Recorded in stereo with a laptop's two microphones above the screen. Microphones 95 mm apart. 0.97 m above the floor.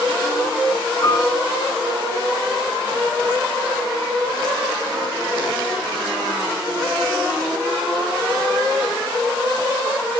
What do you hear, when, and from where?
1.0 s a piano: 50° left (ahead or behind), 8 m